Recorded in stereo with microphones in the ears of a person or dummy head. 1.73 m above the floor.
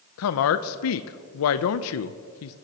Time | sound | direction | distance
0.2 | a woman speaking | 75° left (ahead or behind) | 0.5 m